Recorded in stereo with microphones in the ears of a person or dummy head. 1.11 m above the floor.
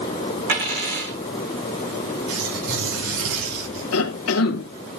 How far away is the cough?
About 1.8 m.